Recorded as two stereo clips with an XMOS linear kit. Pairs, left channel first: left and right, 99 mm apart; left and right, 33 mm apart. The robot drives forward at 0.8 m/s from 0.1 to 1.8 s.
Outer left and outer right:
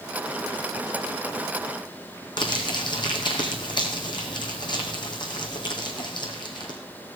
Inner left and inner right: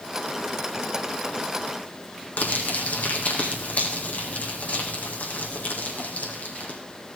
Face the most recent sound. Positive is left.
turn(degrees=50)  # may be behind; listen again after turning